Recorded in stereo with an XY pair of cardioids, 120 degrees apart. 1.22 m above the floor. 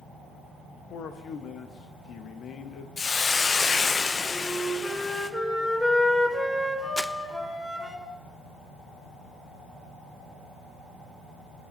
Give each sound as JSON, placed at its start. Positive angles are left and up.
{"t": 0.9, "sound": "a man speaking", "azimuth_deg": 60, "distance_m": 1.3}
{"t": 3.0, "sound": "a hiss", "azimuth_deg": 30, "distance_m": 0.7}
{"t": 4.3, "sound": "a flute", "azimuth_deg": 15, "distance_m": 3.5}
{"t": 7.0, "sound": "crumpling", "azimuth_deg": 5, "distance_m": 0.5}